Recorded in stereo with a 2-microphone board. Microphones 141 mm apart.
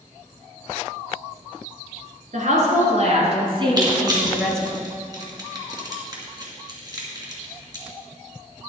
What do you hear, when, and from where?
2.3 s a woman speaking: 60° right (ahead or behind), 3 m; by 4.6 s 5° left (ahead or behind), 1.6 m
3.8 s crushing: 30° right (ahead or behind), 2.5 m